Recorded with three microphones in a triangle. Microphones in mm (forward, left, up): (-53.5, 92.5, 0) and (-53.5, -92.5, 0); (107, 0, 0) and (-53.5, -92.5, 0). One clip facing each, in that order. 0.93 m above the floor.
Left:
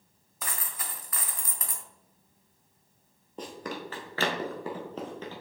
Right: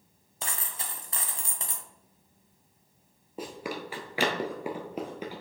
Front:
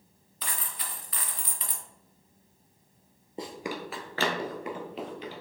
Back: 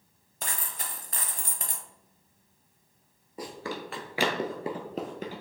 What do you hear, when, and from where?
0.4 s a dropped coin: 145° right, 0.9 m
3.4 s running footsteps: 15° right, 1.1 m; by 5.4 s 165° right, 1.4 m